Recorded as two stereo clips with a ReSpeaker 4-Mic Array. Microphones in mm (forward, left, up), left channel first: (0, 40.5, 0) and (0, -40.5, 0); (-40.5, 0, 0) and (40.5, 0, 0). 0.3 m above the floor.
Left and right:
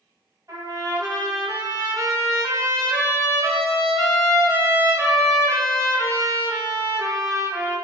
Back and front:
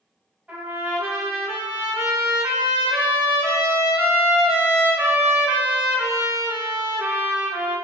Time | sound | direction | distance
0.5 | a trumpet | 65° right | 1.7 m